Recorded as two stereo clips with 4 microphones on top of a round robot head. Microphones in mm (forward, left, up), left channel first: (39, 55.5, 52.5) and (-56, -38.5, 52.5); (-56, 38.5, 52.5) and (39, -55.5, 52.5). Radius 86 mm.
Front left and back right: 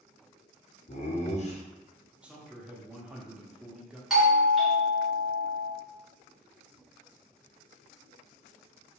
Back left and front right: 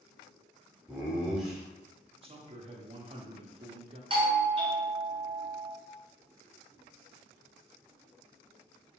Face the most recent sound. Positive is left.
turn(degrees=-45)